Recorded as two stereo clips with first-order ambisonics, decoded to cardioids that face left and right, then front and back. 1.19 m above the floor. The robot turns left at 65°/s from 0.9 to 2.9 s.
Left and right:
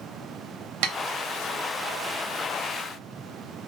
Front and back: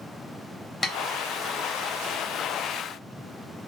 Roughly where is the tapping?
Right.